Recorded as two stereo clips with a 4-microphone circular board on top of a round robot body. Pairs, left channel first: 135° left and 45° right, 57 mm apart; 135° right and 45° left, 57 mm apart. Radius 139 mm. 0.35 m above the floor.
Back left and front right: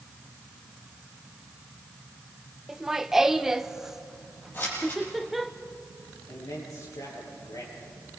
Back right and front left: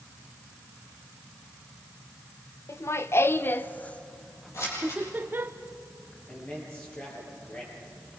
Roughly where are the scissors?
Behind.